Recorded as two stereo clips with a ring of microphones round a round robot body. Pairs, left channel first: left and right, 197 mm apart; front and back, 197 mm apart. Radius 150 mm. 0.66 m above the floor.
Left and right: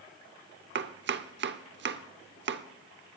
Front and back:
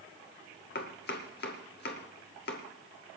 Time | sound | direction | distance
0.8 | chopping | 55° right | 0.8 m